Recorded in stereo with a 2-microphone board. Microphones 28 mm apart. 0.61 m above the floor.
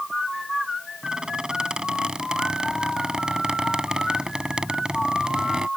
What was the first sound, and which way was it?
A squeak, 35° right (ahead or behind).